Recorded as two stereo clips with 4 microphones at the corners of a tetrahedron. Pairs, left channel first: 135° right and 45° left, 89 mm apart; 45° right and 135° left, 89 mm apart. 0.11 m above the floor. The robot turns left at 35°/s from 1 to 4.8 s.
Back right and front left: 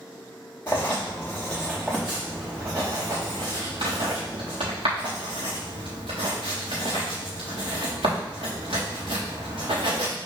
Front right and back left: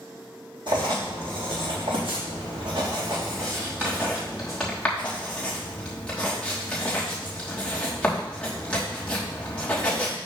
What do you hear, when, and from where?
0.7 s writing: 165° left, 4 m; by 10.2 s 35° left, 4 m